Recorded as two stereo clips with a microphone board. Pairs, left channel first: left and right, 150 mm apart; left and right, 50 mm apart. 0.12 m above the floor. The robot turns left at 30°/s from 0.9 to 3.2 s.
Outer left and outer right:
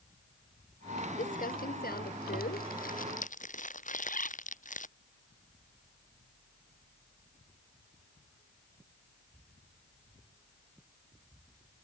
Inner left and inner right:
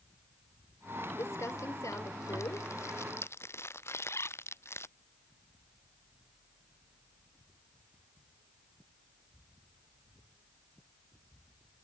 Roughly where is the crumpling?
Left.